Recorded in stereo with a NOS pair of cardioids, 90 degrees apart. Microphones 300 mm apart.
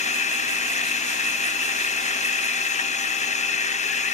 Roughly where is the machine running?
Ahead left.